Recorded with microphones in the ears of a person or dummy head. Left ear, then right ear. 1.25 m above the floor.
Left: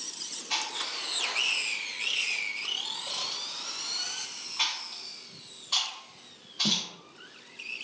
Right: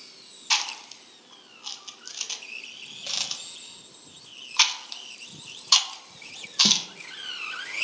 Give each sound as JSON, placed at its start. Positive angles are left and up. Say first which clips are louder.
{"t": 0.5, "sound": "chewing", "louder": "right 5 dB", "side_deg": -55, "distance_m": 0.5}